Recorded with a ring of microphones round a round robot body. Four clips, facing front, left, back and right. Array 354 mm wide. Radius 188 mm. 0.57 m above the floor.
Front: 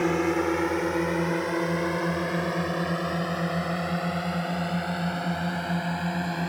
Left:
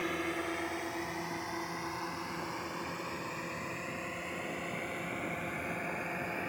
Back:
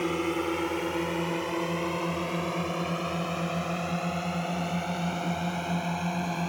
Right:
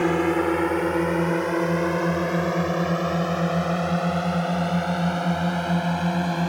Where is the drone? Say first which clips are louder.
Right 15 dB, front 4 dB; 70° right; by 6.5 s 85° right.